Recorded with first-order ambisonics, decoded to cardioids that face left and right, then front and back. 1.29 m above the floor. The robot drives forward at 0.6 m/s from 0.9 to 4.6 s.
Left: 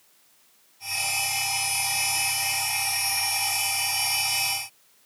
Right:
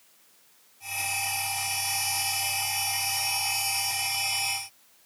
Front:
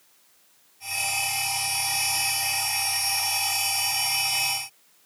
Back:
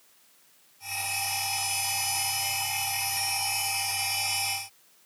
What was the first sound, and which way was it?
Only background noise.